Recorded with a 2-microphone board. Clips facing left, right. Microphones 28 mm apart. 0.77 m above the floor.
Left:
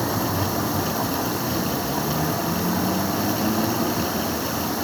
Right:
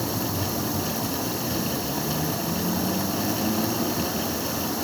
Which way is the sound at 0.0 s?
45° left (ahead or behind).